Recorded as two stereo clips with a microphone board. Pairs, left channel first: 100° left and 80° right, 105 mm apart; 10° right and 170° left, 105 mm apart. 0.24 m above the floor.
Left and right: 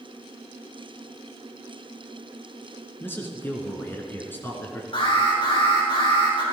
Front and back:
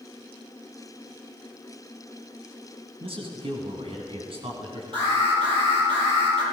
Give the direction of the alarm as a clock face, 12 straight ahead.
7 o'clock.